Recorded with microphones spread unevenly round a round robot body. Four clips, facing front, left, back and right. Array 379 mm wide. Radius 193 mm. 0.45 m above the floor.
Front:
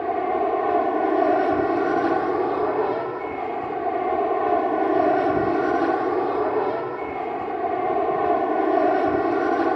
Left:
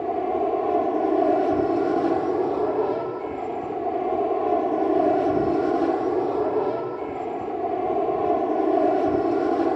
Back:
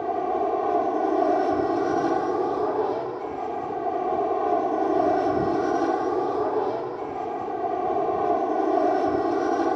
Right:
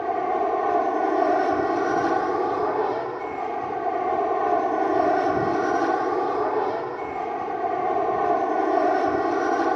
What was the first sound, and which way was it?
An aircraft, 60° left.